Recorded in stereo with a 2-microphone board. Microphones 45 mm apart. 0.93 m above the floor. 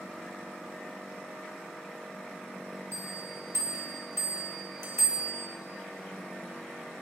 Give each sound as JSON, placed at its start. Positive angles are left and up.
{"t": 2.9, "sound": "a bell", "side_deg": -85, "distance_m": 3.5}